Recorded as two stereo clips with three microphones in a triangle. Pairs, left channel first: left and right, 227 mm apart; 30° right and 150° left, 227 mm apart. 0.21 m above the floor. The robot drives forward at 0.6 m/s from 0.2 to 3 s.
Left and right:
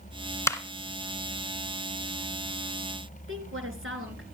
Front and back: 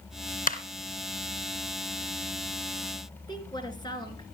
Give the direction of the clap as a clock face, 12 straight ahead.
12 o'clock.